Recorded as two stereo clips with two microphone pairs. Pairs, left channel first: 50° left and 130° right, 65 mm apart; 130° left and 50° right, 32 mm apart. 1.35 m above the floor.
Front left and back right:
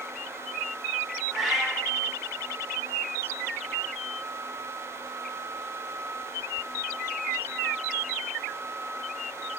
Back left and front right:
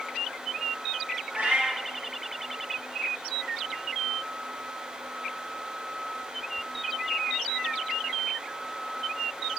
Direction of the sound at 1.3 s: 45° right.